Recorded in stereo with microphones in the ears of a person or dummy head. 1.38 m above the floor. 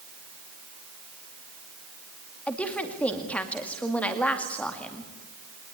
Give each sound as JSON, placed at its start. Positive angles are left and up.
{"t": 2.5, "sound": "a woman speaking", "side_deg": 5, "distance_m": 2.0}